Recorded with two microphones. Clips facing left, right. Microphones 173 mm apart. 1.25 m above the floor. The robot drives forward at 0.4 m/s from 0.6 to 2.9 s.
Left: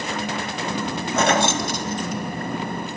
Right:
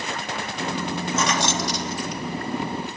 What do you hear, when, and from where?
1.2 s keys jangling: 55° left (ahead or behind), 1.3 m; by 2.6 s 40° left (ahead or behind), 1.7 m